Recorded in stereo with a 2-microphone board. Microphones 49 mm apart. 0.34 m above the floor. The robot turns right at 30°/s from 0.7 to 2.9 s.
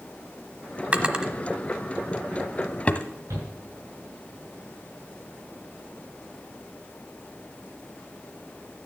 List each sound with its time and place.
0.9 s a drawer: 30° right (ahead or behind), 1.1 m; by 3.1 s 25° left (ahead or behind), 1.1 m
3.3 s a shout: 75° right (ahead or behind), 6 m